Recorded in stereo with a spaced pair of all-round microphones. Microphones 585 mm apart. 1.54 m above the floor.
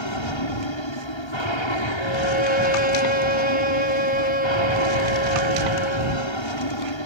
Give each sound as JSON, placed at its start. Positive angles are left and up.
{"t": 0.0, "sound": "an aircraft", "side_deg": 50}
{"t": 2.0, "sound": "a violin", "side_deg": -15}